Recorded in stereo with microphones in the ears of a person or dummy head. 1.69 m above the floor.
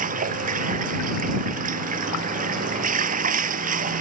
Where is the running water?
35° right (ahead or behind).